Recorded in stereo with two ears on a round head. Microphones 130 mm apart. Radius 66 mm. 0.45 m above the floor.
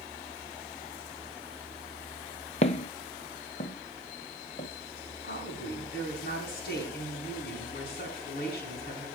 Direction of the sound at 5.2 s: 75° left (ahead or behind).